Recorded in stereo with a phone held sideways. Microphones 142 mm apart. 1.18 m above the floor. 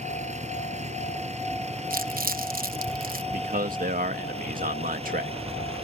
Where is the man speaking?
70° right (ahead or behind).